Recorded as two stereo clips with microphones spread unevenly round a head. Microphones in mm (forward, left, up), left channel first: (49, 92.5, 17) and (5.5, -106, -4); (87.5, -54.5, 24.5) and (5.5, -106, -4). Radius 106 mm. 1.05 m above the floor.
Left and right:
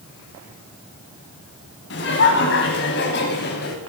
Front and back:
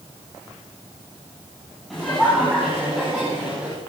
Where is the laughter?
120° left, 7 m; by 3.8 s 130° left, 5.5 m.